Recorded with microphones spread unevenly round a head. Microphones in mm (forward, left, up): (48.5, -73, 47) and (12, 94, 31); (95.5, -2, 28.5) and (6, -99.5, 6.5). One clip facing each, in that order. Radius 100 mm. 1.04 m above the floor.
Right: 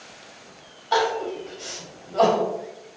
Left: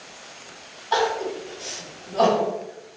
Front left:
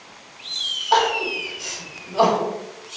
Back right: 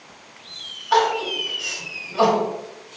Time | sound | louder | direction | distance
0.9 | crying | even, even | 10° right | 1.1 m